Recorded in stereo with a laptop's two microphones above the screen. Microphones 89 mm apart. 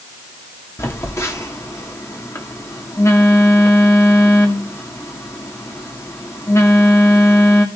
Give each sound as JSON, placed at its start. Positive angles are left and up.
{"t": 0.8, "sound": "a phone buzzing", "side_deg": 35, "distance_m": 2.0}